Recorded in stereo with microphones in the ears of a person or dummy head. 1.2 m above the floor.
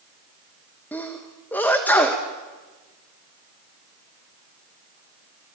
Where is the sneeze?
5° left (ahead or behind), 1.5 m.